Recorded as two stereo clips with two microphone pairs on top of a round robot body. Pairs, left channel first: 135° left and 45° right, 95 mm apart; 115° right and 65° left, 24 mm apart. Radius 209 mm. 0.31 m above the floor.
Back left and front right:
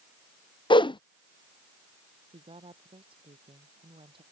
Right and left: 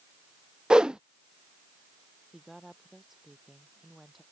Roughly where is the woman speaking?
Ahead.